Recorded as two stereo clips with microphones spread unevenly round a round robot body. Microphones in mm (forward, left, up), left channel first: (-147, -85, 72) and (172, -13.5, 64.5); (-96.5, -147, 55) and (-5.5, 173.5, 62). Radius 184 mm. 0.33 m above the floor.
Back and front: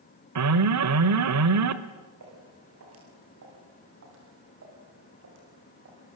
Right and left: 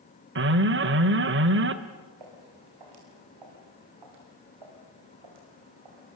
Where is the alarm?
25° left, 1.4 m.